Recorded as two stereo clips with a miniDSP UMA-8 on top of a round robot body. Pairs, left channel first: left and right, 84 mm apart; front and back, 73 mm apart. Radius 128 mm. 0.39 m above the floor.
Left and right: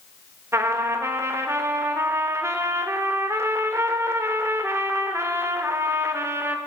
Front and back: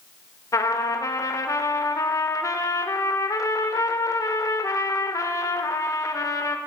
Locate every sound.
0.5 s a trumpet: 35° right, 1.1 m